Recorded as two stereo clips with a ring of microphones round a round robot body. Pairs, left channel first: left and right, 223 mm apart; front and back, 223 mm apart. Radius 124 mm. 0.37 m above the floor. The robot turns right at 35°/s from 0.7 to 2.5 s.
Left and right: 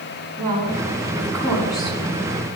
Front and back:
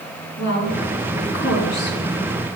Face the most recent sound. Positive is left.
turn(degrees=45)